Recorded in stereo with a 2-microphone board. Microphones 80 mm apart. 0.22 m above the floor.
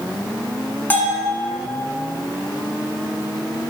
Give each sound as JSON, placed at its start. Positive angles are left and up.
{"t": 0.9, "sound": "a bell", "side_deg": 25, "distance_m": 1.4}